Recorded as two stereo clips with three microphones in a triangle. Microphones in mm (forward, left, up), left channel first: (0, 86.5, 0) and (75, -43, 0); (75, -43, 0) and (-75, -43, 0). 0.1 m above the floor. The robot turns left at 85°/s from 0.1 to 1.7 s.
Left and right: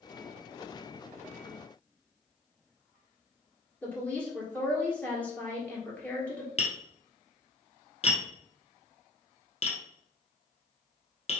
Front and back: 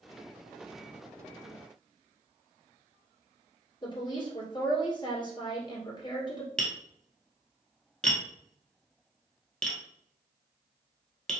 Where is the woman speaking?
45° left, 1.7 m.